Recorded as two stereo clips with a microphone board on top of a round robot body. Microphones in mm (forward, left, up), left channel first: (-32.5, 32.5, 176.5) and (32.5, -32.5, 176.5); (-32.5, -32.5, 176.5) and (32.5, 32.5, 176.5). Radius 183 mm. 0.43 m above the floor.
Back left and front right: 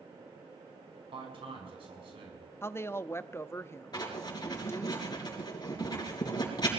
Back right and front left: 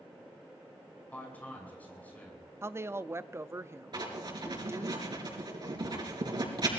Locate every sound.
1.1 s a man speaking: 60° right, 6.5 m
2.6 s a woman speaking: 90° left, 0.8 m
3.9 s writing: 90° left, 3.5 m